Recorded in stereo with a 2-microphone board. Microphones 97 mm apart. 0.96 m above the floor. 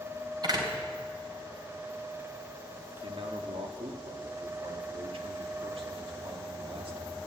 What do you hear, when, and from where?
0.4 s a door slam: 45° right (ahead or behind), 3 m
3.0 s a man speaking: 75° right (ahead or behind), 2.0 m